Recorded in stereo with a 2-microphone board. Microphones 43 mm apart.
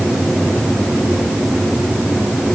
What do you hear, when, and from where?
Only background noise.